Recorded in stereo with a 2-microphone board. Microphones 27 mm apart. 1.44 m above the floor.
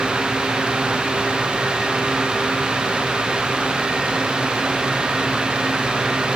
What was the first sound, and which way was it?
Only background noise.